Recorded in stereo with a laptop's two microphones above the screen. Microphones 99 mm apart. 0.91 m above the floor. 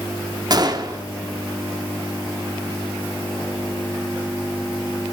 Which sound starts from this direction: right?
A gunshot, at 0.5 s.